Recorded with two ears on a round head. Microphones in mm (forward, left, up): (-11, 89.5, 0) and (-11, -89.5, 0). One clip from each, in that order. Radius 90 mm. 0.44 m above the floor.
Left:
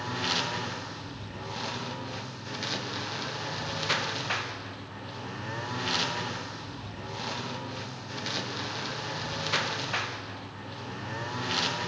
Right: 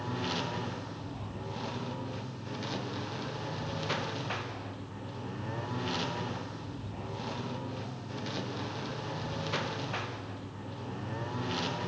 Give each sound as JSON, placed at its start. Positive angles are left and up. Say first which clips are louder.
{"t": 0.0, "sound": "a lawn mower", "louder": "left 5 dB", "side_deg": 45}